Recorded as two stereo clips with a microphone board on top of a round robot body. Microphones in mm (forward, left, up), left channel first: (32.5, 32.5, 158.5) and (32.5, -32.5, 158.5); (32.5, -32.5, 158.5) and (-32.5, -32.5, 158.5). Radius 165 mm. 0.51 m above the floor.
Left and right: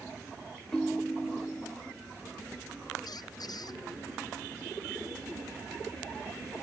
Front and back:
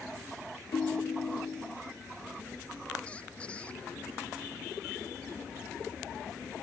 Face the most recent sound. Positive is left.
turn(degrees=75)